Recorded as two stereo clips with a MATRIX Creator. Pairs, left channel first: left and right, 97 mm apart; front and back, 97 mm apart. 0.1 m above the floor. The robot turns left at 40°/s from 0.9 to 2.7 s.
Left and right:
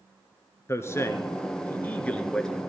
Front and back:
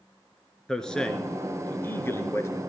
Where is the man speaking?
80° left, 1.4 m; by 2.5 s 15° left, 1.4 m.